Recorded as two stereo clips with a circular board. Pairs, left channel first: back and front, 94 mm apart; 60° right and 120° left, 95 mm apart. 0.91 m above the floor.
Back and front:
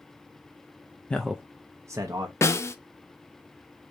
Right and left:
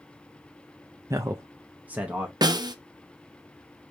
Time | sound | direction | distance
1.1 | a man speaking | 110° left | 0.5 m
2.4 | a snare drum | 130° left | 0.6 m